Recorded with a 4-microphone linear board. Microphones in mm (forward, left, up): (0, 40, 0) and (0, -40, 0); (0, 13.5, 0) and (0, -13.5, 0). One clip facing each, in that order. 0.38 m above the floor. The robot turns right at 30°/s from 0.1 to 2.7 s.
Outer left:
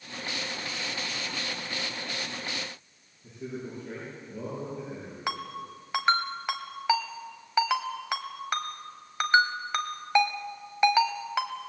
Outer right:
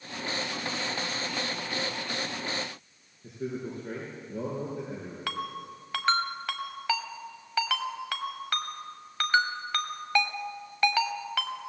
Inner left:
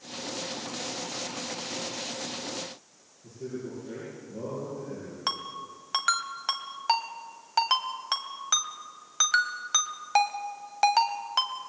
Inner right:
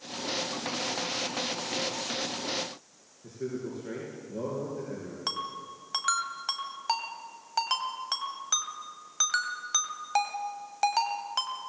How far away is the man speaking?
About 6 m.